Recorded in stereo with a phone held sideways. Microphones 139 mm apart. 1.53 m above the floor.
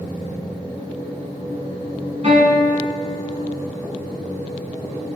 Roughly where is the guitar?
Right.